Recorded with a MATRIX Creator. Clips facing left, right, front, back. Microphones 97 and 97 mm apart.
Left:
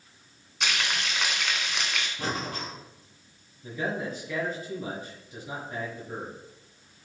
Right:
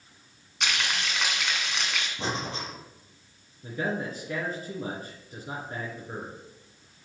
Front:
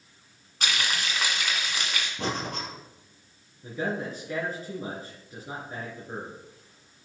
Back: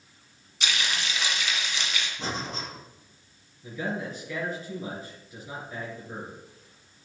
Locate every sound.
0.6 s frying: straight ahead, 2 m
2.2 s breathing: 25° right, 3 m
3.6 s a man speaking: 45° right, 3 m